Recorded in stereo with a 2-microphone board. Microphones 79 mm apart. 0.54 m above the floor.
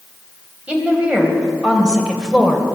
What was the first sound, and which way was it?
A woman speaking, 15° right (ahead or behind).